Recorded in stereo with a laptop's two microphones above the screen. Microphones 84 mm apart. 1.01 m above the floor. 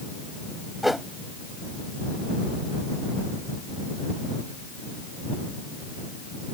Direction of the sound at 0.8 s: Centre (ahead or behind).